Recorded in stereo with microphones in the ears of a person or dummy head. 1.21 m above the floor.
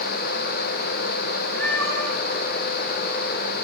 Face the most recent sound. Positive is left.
turn(degrees=15)  # may be behind; listen again after turning